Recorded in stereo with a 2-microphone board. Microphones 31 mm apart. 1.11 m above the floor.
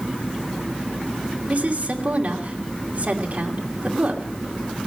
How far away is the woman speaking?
About 2.5 m.